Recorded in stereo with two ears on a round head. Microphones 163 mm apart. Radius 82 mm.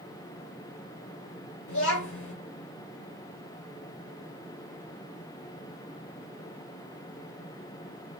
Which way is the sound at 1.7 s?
80° left.